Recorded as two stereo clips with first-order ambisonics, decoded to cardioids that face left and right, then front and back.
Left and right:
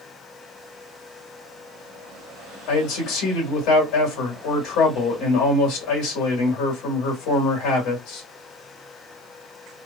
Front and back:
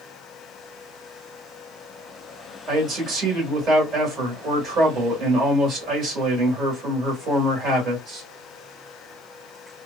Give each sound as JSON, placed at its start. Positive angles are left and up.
{"t": 2.7, "sound": "a man speaking", "azimuth_deg": 130, "distance_m": 2.5}